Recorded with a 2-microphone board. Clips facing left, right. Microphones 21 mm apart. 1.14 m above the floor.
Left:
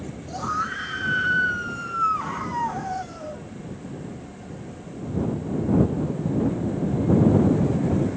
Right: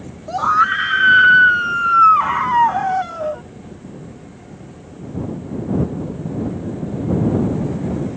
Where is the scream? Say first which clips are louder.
Right 12 dB; 65° right (ahead or behind).